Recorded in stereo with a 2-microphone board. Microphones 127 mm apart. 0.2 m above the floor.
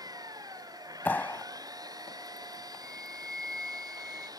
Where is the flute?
5° right (ahead or behind).